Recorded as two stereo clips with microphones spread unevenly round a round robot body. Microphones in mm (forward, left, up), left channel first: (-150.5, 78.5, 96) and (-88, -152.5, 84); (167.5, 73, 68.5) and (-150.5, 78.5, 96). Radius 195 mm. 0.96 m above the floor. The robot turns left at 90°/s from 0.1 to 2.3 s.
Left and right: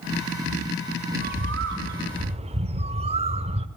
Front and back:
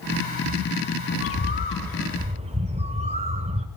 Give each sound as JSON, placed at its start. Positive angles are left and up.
{"t": 1.1, "sound": "a bird", "azimuth_deg": -20, "distance_m": 0.7}